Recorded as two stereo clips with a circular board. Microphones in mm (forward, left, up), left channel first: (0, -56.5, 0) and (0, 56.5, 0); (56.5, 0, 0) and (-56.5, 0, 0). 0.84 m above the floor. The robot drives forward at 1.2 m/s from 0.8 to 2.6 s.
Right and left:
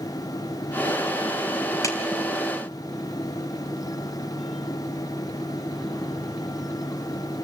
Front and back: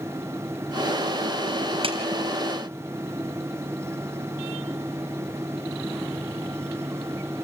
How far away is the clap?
About 4 m.